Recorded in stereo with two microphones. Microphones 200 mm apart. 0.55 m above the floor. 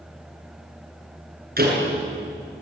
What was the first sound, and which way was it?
A door slam, 45° right (ahead or behind).